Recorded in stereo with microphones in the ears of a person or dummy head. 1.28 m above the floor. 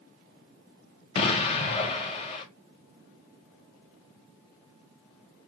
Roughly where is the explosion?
Left.